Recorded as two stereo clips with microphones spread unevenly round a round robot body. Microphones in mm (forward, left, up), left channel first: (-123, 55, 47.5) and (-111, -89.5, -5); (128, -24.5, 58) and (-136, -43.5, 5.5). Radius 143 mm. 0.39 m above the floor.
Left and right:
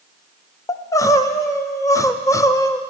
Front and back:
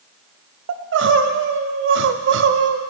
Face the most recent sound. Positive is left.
turn(degrees=180)